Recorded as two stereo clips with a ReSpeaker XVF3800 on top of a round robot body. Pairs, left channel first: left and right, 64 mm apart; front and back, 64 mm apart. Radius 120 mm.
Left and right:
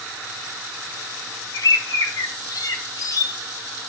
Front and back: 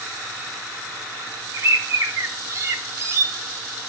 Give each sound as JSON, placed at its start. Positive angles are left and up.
{"t": 1.5, "sound": "a bird", "azimuth_deg": 130, "distance_m": 0.6}